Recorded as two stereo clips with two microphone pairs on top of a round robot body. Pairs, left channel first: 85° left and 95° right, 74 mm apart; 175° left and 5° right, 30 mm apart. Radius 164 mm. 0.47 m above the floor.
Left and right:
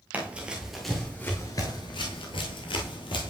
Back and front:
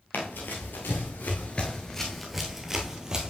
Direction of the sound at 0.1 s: 165° right.